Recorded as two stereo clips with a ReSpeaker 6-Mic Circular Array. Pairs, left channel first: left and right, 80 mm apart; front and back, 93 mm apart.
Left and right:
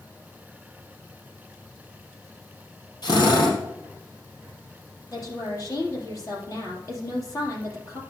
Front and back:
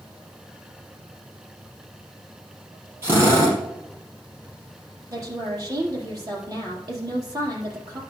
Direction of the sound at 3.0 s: 120° left.